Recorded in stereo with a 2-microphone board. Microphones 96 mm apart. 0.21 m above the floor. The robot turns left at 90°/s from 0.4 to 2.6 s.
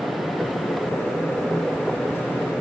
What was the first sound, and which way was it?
Only background noise.